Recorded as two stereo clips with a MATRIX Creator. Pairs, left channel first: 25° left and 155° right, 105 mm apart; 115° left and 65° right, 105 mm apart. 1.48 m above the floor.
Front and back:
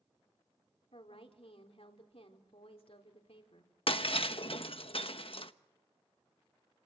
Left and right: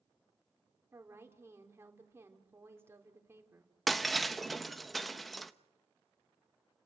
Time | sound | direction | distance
0.9 | a woman speaking | straight ahead | 4 m
3.9 | breaking glass | 25° left | 1.0 m